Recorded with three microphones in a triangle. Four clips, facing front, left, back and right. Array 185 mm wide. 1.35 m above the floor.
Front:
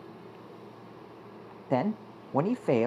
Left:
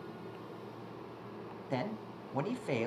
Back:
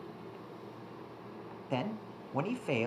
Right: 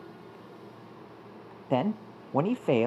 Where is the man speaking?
50° right, 0.6 m.